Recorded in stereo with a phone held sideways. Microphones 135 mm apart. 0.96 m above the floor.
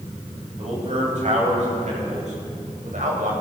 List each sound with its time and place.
0.6 s a man speaking: 60° right (ahead or behind), 5.5 m; by 3.3 s 75° right (ahead or behind), 4 m